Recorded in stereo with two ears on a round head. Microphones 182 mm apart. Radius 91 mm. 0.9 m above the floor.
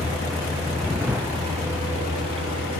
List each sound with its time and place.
0.0 s a vehicle: centre (ahead or behind); by 2.8 s 15° right (ahead or behind)